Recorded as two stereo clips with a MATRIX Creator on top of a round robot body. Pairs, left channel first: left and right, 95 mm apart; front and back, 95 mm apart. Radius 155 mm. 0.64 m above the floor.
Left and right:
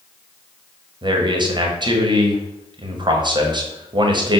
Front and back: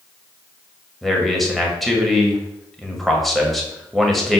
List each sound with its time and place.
1.0 s a man speaking: 90° right, 1.6 m